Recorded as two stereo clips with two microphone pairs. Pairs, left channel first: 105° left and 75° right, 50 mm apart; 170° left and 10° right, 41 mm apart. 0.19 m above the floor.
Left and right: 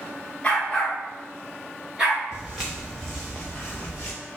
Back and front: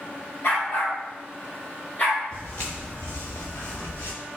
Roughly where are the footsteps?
Behind right.